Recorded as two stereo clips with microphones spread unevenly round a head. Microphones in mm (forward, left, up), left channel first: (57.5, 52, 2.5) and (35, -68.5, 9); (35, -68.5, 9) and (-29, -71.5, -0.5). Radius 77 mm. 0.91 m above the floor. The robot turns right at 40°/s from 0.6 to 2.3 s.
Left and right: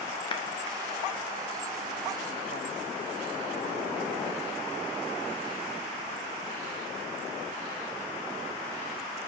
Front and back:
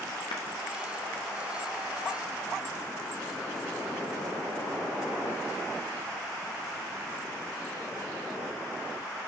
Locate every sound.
0.3 s a clap: 35° left, 1.0 m